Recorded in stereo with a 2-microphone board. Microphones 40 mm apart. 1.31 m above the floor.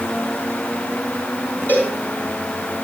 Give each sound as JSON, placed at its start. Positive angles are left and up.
{"t": 1.7, "sound": "a cowbell", "side_deg": 55, "distance_m": 7.5}